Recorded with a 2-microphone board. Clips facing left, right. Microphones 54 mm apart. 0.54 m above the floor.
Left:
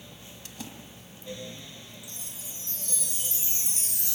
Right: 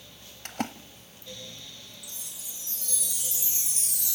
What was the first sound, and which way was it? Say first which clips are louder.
A splash: right 11 dB; 50° right (ahead or behind).